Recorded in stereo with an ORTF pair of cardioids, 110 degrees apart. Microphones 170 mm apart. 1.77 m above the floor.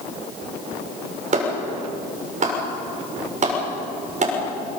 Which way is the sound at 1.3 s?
45° right.